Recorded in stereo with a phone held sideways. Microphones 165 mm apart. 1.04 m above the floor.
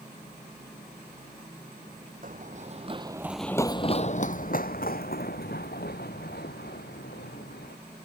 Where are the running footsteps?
55° right (ahead or behind); by 7.8 s 70° left (ahead or behind).